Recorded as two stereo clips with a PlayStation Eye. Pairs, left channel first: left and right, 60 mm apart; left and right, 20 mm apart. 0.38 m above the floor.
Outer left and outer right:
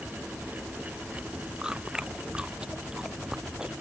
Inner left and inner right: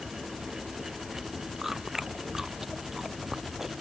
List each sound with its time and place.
1.6 s chewing: 15° right (ahead or behind)